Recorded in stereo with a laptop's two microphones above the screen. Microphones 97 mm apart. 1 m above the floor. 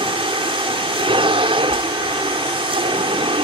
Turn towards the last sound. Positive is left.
turn(degrees=-70)  # may be behind; listen again after turning